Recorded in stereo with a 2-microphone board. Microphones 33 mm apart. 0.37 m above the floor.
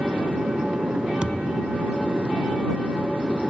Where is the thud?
35° right (ahead or behind).